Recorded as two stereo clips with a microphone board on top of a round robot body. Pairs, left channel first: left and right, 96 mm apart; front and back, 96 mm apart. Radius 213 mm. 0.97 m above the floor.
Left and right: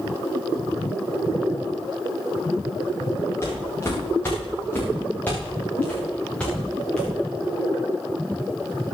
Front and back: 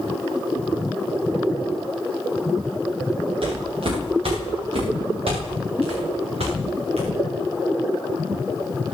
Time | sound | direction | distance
3.4 | footsteps | 155° left | 8 m